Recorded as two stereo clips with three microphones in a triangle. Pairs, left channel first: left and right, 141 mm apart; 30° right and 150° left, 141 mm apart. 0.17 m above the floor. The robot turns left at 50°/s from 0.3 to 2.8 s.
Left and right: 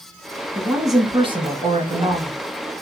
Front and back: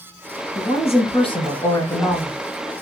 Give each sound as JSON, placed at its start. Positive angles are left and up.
{"t": 0.6, "sound": "a woman speaking", "azimuth_deg": -20, "distance_m": 1.4}